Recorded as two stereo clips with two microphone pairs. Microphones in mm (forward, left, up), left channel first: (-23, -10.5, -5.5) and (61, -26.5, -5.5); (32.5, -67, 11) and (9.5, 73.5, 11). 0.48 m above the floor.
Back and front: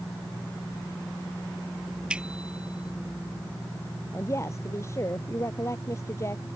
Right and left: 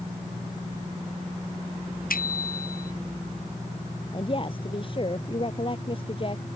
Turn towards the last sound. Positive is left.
turn(degrees=-135)